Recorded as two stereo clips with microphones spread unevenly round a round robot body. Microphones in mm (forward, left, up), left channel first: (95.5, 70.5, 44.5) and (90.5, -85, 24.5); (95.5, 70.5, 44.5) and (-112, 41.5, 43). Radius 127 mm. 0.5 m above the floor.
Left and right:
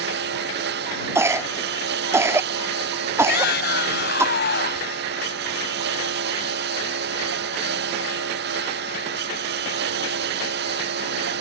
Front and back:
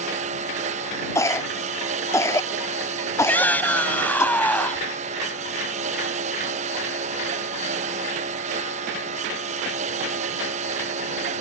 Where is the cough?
55° right.